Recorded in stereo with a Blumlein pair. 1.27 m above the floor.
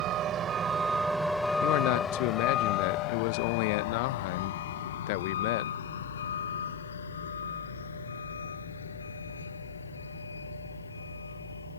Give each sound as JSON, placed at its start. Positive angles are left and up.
{"t": 0.0, "sound": "a vehicle", "azimuth_deg": -35}
{"t": 1.6, "sound": "a man speaking", "azimuth_deg": 45}